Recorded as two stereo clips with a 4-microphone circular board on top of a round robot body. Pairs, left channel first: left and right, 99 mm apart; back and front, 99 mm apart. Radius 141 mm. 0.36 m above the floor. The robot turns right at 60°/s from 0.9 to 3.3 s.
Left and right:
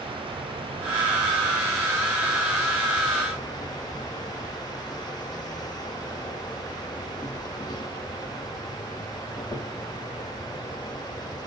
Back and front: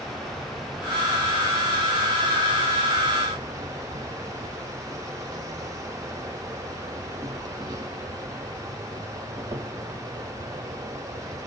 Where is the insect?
95° right, 1.0 m; by 11.5 s 50° left, 1.0 m.